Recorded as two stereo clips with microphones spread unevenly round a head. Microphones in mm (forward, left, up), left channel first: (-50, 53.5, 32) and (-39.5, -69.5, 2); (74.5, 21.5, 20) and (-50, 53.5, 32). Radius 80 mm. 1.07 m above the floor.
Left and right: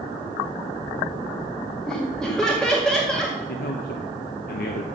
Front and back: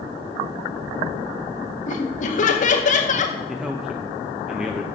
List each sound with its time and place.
1.9 s laughter: 5° left, 1.8 m
3.5 s a man speaking: 80° left, 0.9 m